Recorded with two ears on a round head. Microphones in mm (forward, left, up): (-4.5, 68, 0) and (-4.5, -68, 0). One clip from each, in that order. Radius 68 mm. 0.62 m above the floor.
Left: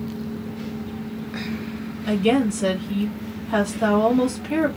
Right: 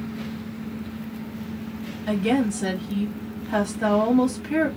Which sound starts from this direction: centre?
A woman speaking, at 2.1 s.